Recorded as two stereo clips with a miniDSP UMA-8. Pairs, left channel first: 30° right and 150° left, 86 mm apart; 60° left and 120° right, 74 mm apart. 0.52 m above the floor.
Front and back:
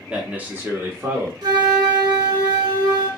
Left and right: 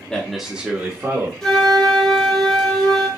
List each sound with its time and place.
0.1 s a man speaking: 100° left, 0.8 m; by 1.3 s 160° right, 1.3 m
1.4 s a flute: 145° left, 1.3 m